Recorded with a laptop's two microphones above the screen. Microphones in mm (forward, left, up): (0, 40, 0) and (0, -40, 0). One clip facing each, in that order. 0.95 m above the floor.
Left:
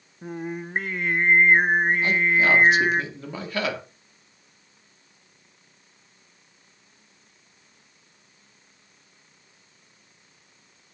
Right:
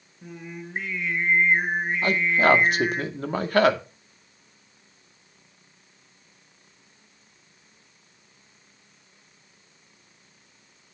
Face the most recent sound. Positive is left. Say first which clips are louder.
# right 1 dB
turn(degrees=-50)  # may be behind; listen again after turning